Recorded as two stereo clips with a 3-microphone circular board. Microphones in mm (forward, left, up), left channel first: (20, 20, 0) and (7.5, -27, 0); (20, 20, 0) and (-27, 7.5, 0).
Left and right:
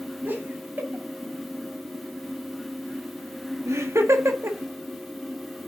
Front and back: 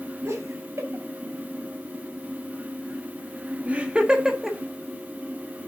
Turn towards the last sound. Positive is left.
turn(degrees=-80)